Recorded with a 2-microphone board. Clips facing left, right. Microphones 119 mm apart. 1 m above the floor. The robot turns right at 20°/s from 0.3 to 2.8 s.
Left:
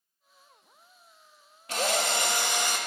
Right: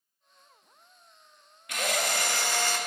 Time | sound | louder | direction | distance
1.7 | a drill | left 2 dB | 30° left (ahead or behind) | 0.7 m